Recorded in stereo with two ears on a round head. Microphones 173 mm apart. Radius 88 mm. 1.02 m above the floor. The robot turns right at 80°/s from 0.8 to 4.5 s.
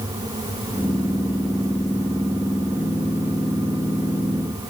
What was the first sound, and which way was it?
Only background noise.